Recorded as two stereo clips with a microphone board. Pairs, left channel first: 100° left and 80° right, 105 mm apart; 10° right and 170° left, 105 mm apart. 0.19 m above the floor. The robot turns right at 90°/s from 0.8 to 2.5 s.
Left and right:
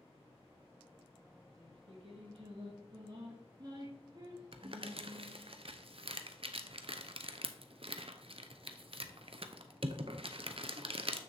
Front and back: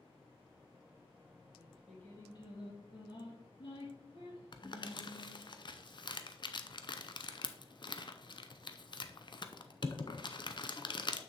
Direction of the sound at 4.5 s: 55° right.